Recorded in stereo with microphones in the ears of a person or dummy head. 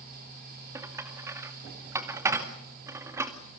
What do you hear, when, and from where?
0.8 s dishes clattering: 10° right (ahead or behind), 2 m